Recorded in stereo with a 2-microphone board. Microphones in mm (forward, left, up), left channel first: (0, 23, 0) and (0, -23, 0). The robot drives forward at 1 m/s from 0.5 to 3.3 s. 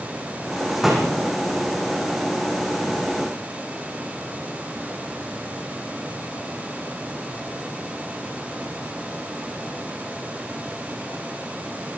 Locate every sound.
0.7 s a door slam: 5° right (ahead or behind), 8.5 m